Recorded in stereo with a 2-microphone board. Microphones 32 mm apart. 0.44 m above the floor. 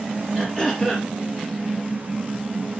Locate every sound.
0.3 s throat clearing: 5° left (ahead or behind), 4 m